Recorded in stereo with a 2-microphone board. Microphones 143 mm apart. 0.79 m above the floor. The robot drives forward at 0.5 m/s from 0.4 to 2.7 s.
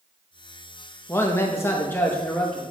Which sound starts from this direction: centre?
A man speaking, at 1.1 s.